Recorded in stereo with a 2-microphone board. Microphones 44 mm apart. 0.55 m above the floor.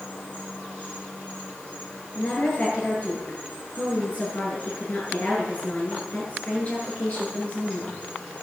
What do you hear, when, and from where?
0.0 s an insect: 25° left (ahead or behind), 9.5 m
2.1 s a woman speaking: 30° left (ahead or behind), 9.5 m